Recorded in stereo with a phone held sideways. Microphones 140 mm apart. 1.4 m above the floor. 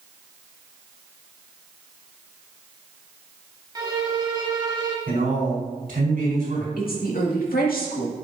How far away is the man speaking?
About 4 m.